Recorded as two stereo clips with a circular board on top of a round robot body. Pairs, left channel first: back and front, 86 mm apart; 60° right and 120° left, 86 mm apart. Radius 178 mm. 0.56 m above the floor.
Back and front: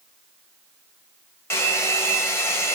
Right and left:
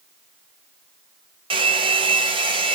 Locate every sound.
1.5 s a hair dryer: 120° left, 1.1 m